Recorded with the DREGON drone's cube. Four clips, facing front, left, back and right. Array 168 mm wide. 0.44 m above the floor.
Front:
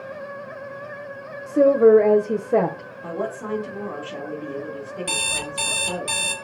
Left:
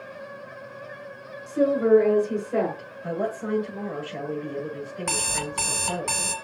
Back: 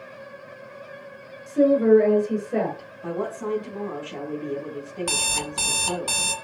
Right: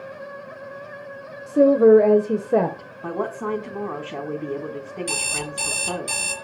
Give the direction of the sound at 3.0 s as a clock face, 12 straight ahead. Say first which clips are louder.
Right 2 dB, even; 3 o'clock.